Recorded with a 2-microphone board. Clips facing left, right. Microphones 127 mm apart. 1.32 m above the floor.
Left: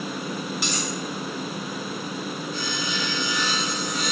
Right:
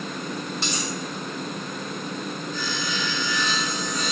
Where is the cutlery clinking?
30° right (ahead or behind), 1.7 m.